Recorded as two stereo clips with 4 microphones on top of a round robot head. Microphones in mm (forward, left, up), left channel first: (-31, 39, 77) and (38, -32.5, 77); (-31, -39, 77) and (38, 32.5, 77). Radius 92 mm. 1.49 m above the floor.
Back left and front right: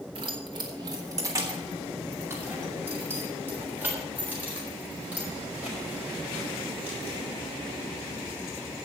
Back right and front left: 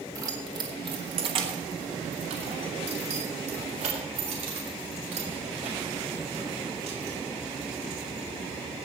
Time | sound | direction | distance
0.1 | keys jangling | 10° right | 1.2 m